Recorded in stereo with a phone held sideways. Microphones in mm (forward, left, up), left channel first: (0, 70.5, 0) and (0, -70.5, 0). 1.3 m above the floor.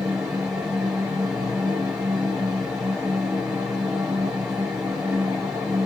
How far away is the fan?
About 2 m.